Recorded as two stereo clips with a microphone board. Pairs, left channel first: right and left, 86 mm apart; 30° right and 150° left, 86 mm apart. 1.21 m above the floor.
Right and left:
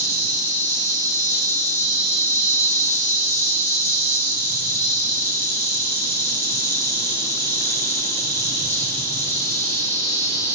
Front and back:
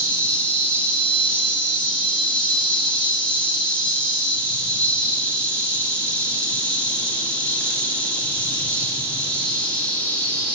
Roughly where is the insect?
Right.